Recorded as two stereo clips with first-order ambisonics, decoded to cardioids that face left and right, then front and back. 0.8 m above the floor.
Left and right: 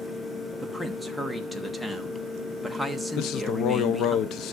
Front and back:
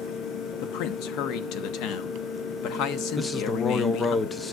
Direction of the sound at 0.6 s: 5° left.